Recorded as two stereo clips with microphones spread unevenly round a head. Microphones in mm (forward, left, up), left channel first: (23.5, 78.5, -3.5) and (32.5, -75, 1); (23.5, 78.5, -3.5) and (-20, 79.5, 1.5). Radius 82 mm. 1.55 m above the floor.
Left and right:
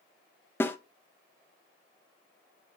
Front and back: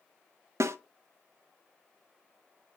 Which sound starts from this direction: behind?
A snare drum, at 0.6 s.